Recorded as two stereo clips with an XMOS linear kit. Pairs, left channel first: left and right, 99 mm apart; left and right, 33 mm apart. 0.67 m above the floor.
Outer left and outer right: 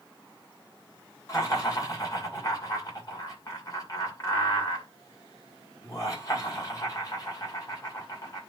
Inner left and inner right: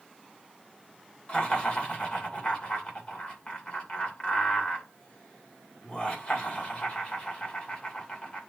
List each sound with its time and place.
1.3 s laughter: 35° left (ahead or behind), 2.5 m